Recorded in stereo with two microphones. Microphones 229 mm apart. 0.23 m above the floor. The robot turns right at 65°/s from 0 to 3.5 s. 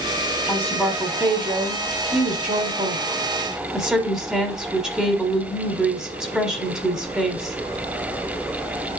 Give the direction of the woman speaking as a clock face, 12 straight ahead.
7 o'clock.